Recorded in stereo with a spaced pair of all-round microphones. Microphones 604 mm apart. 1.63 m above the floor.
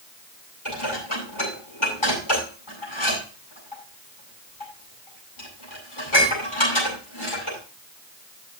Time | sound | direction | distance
0.7 | dishes clattering | 55° left (ahead or behind) | 8 m